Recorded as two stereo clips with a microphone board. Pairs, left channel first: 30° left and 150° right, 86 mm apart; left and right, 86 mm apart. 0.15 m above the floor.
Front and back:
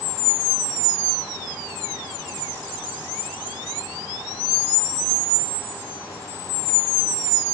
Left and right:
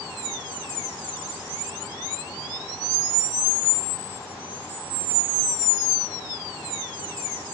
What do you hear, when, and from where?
Only background noise.